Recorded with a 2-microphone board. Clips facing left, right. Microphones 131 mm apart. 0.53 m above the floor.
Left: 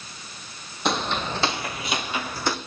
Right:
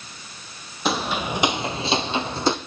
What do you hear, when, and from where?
0.8 s footsteps: centre (ahead or behind), 1.0 m; by 2.6 s 25° right (ahead or behind), 1.1 m